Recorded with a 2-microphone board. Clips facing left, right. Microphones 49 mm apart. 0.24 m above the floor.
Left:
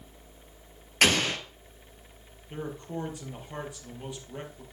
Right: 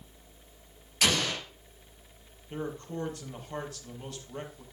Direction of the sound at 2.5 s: 15° left (ahead or behind).